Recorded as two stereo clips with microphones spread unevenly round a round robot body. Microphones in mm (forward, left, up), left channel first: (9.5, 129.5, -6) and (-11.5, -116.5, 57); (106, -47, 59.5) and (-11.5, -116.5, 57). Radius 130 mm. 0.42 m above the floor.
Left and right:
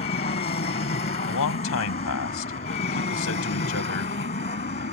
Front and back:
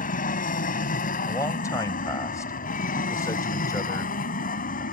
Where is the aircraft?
25° left.